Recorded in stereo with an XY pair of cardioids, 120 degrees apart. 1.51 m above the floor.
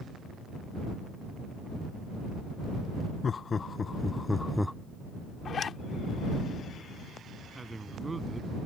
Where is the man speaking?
15° right.